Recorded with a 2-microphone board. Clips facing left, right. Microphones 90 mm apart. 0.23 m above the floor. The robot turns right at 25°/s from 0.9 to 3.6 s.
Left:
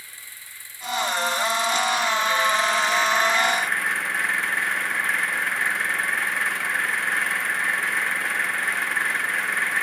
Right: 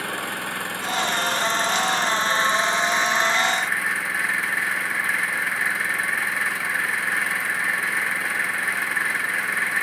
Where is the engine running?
70° right; by 9.8 s straight ahead.